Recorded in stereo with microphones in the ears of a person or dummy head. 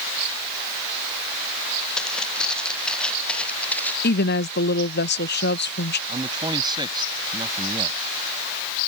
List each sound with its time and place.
2.0 s footsteps: 5° left (ahead or behind); by 3.9 s 10° left (ahead or behind)
4.0 s a woman speaking: 55° left (ahead or behind)
6.1 s a man speaking: 30° right (ahead or behind)